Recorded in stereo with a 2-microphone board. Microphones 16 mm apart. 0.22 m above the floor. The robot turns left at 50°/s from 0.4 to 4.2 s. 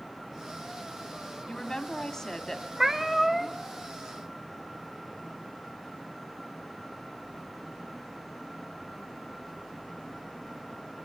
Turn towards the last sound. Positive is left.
turn(degrees=140)